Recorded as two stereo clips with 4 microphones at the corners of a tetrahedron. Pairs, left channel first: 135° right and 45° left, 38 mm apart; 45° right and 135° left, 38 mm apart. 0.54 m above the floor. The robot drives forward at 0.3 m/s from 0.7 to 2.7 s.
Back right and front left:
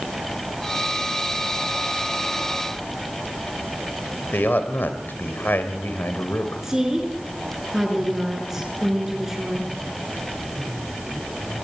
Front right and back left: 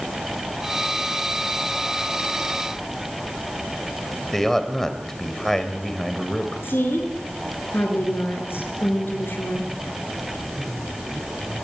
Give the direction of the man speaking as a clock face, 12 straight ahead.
4 o'clock.